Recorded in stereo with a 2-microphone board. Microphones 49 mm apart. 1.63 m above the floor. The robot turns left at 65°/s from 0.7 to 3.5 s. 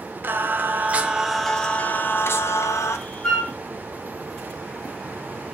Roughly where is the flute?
Centre.